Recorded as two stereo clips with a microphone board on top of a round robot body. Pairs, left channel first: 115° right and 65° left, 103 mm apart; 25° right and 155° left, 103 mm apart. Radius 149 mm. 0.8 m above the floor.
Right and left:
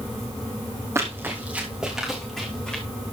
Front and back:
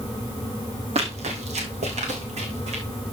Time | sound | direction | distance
0.9 | running footsteps | 135° left | 2.5 m